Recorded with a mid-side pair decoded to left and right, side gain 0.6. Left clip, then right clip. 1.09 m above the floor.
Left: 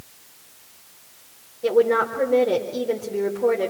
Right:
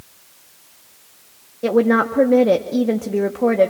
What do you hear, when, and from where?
1.6 s a woman speaking: 60° right, 1.8 m